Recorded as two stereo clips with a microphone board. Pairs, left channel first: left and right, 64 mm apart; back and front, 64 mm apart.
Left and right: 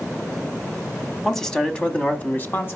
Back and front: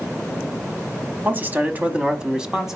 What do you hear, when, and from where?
1.2 s a man speaking: 5° left, 1.1 m; by 2.8 s 80° left, 1.2 m